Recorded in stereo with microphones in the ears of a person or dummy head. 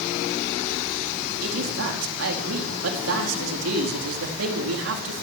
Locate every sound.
1.4 s a man speaking: 75° right (ahead or behind), 4 m